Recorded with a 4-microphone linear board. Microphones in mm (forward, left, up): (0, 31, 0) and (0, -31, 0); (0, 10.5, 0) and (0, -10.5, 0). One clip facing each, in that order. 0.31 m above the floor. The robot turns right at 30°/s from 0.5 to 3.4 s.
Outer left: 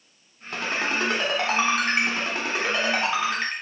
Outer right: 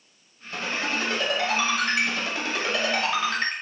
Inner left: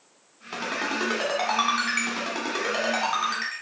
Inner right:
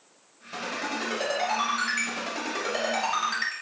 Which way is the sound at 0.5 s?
70° left (ahead or behind).